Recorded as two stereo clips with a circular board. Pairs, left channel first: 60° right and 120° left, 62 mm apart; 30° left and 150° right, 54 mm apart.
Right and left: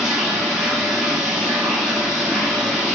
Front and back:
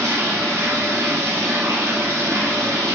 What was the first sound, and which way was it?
Running water, 155° right.